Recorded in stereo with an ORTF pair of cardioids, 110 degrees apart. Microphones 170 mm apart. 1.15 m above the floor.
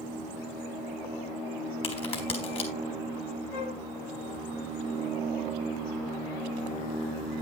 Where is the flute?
65° left, 1.3 m.